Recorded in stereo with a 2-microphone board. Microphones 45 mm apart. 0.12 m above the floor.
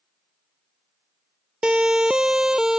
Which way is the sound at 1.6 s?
20° right (ahead or behind).